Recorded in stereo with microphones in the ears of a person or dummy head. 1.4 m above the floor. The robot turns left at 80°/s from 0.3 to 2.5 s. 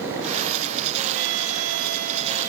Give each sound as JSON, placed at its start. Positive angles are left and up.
{"t": 1.1, "sound": "a violin", "azimuth_deg": -50}